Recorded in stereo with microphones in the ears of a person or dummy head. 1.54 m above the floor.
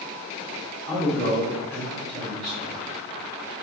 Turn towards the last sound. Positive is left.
turn(degrees=-30)  # may be behind; listen again after turning